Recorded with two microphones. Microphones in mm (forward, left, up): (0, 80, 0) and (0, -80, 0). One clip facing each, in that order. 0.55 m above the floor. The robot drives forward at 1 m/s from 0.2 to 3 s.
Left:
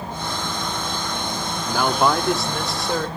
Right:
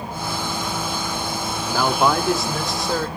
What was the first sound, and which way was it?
A man speaking, centre (ahead or behind).